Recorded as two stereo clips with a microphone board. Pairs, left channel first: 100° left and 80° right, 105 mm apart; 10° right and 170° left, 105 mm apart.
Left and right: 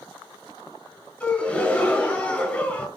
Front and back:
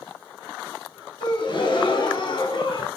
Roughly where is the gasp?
Ahead left.